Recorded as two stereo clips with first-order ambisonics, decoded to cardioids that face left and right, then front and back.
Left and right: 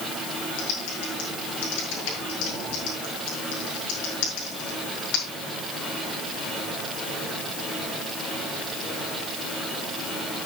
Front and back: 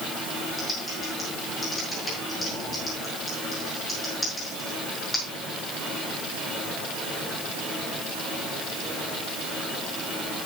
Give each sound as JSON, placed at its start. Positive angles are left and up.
{"t": 0.6, "sound": "typing on a keyboard", "azimuth_deg": 80, "distance_m": 6.0}